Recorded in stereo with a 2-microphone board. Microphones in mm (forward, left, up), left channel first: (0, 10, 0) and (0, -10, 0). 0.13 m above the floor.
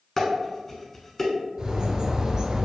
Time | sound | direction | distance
0.2 | dishes clattering | 20° left (ahead or behind) | 1.0 m
1.6 | a bird | 45° right (ahead or behind) | 0.6 m